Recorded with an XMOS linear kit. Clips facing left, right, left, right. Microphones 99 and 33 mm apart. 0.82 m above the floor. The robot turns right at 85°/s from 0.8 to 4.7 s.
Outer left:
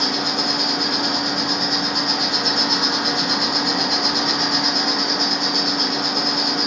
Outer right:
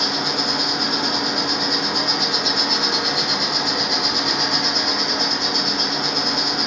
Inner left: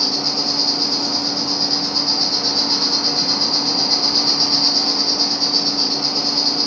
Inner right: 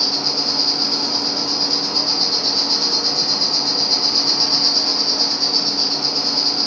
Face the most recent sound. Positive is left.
turn(degrees=175)